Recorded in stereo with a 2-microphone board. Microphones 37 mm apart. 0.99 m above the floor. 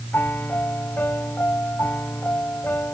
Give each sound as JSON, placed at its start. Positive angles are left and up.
{"t": 0.1, "sound": "a piano", "side_deg": 65}